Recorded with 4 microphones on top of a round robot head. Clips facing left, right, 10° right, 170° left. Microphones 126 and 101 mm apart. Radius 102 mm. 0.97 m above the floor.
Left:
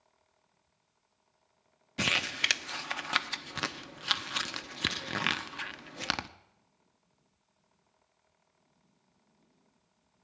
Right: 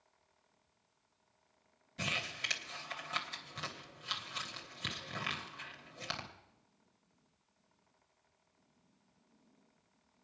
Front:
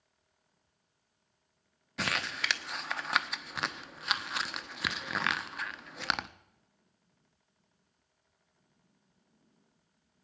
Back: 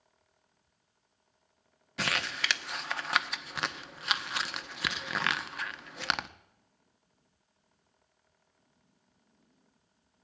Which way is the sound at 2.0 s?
80° left.